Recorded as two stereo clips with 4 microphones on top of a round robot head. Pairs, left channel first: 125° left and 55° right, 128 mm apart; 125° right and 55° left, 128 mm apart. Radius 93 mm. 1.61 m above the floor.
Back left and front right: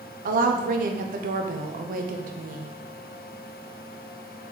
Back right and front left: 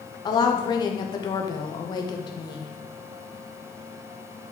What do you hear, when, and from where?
0.2 s a woman speaking: 65° right, 0.9 m